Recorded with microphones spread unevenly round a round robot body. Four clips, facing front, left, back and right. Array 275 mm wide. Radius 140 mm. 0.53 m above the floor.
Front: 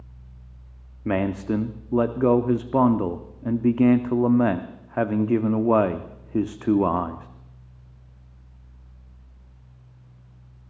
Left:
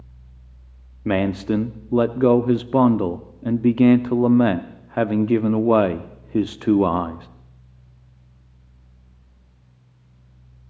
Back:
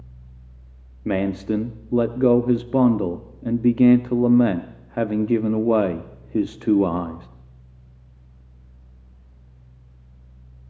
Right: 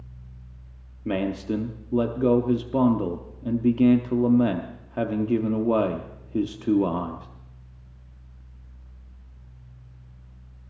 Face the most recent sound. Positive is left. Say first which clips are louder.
# left 5 dB, back 2 dB
turn(degrees=100)